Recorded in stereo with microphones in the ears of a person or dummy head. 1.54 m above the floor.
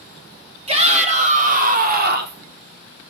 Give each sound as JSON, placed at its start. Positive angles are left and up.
{"t": 0.7, "sound": "a shout", "side_deg": -30, "distance_m": 2.5}